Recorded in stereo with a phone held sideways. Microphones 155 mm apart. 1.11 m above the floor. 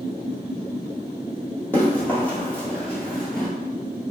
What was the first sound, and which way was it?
Running footsteps, 10° left (ahead or behind).